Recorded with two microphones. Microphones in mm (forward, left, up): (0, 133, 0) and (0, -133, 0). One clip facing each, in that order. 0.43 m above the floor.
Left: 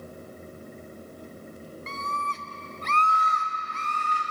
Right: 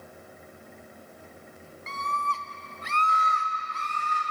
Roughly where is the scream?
Left.